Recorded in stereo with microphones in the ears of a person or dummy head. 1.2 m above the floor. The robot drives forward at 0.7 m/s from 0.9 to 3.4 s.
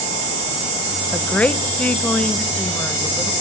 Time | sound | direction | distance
1.1 | a woman speaking | 5° left (ahead or behind) | 0.7 m